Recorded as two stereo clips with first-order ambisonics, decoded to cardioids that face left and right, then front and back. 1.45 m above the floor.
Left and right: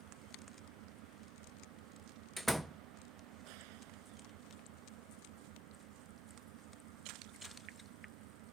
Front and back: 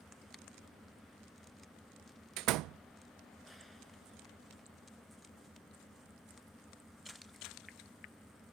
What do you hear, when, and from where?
0.0 s an engine running: 90° right
2.4 s a door slam: 175° right